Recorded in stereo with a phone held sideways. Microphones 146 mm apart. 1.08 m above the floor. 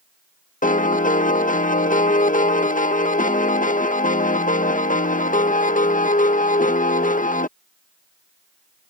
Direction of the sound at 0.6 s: 65° left (ahead or behind).